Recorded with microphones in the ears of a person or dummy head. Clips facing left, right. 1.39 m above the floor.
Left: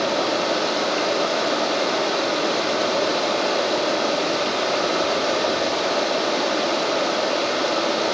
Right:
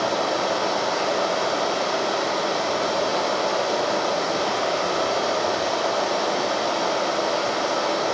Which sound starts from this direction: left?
Running water, at 0.0 s.